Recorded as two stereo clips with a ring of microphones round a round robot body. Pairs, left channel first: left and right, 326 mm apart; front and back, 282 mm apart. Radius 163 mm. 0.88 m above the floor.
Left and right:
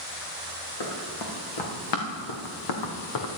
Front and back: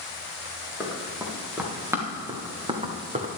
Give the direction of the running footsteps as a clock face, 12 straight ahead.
9 o'clock.